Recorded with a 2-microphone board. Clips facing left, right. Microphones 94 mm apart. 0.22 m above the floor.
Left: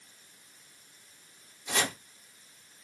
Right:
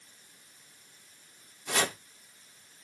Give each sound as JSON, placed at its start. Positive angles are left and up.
{"t": 1.7, "sound": "chopping", "side_deg": -55, "distance_m": 1.7}